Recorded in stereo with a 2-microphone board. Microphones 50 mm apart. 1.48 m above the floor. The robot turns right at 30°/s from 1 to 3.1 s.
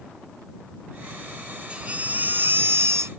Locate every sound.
1.7 s a baby crying: 160° right; by 3.1 s 120° right